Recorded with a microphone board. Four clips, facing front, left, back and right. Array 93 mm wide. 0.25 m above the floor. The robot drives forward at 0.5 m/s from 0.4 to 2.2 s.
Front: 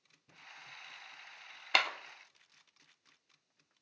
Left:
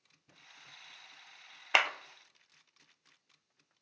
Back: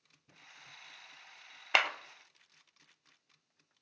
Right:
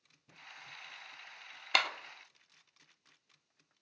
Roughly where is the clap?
Behind left.